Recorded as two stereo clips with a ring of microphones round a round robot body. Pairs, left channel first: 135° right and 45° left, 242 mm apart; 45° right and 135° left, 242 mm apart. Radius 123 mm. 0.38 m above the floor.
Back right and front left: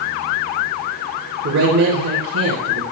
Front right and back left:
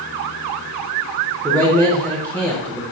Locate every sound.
1.4 s a man speaking: 35° left, 2.5 m